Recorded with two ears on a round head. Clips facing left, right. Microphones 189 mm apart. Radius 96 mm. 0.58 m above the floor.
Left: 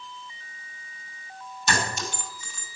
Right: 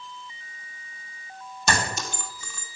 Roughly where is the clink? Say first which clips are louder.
Right 1 dB; right.